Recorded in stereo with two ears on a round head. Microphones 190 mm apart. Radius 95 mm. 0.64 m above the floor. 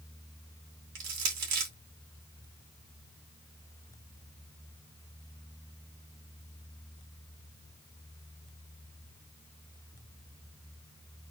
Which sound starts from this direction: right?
Crushing, at 0.9 s.